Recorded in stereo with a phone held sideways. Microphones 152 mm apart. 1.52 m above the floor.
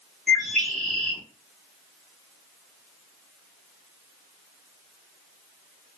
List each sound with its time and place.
0.3 s a bird: 5° left (ahead or behind), 0.9 m